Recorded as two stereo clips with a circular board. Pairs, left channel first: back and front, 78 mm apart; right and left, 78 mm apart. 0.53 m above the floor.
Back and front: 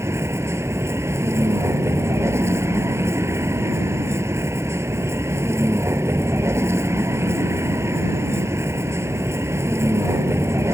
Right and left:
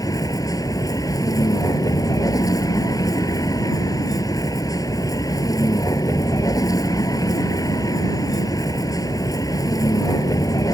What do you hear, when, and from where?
0.0 s a vehicle: 55° right